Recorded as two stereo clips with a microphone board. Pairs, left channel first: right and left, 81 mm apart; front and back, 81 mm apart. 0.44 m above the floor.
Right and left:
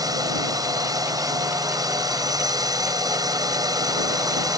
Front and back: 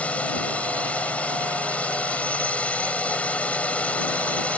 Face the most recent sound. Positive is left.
turn(degrees=70)